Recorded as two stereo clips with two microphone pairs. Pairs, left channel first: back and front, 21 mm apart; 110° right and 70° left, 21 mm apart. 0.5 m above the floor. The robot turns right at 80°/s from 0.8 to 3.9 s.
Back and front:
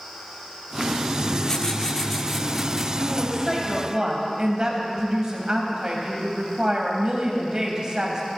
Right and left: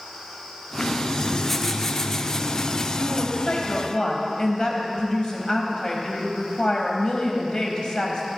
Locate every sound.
1.2 s writing: 145° left, 1.1 m; by 2.9 s 80° right, 1.1 m
3.0 s a woman speaking: 140° right, 3 m; by 8.2 s 65° right, 3 m